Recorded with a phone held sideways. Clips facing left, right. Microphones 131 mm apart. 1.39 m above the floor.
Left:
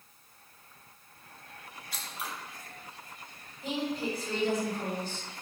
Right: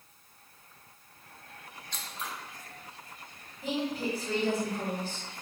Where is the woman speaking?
80° right, 1.9 m.